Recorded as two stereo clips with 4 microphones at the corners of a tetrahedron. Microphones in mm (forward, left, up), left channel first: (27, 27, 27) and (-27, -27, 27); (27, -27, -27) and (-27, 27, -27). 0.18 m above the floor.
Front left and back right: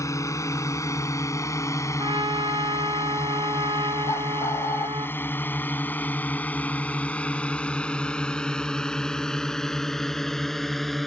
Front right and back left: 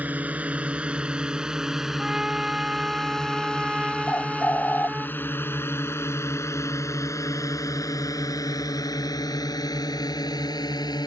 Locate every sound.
0.0 s a drone: 70° left; by 11.1 s 45° right
2.0 s a trumpet: 145° right
4.1 s a bird: 15° left